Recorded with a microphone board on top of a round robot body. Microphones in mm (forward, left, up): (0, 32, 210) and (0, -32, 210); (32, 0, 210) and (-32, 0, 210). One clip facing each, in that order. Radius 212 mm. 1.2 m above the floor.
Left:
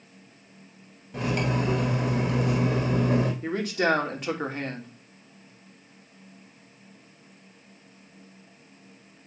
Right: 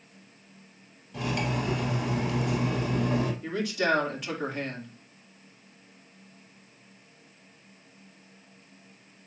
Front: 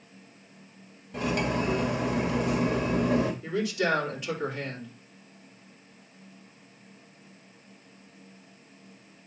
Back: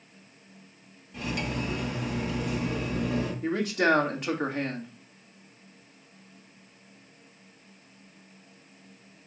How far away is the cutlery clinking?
About 1.2 m.